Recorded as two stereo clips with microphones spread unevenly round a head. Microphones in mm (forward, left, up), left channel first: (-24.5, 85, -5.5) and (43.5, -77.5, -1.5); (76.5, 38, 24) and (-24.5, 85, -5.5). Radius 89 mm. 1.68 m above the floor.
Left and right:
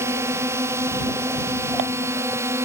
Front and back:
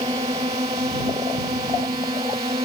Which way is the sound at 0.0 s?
140° right.